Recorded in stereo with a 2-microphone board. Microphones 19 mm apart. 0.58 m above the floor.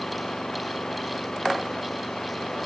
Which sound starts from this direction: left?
An engine running, at 0.0 s.